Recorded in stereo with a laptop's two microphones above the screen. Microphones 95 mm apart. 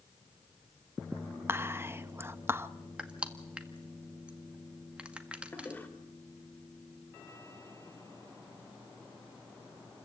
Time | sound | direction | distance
1.5 | whispering | 25° right (ahead or behind) | 0.7 m
3.0 | crushing | 10° right (ahead or behind) | 1.6 m
5.5 | a toilet flushing | 20° left (ahead or behind) | 2.5 m